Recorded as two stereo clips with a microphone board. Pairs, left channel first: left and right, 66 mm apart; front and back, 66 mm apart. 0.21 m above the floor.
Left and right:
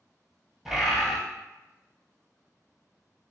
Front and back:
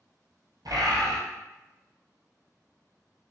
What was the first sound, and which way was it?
A bird, straight behind.